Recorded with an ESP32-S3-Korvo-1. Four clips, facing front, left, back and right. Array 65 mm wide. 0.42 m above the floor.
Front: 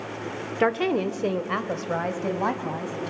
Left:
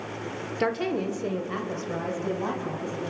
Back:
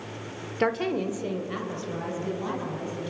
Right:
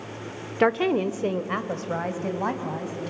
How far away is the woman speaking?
About 1.0 m.